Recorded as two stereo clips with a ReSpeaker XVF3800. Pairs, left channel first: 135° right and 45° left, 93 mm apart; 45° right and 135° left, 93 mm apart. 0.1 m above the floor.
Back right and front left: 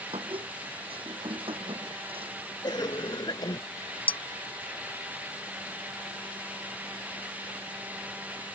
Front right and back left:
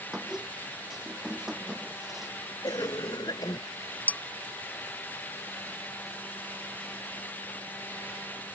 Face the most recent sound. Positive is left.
turn(degrees=-120)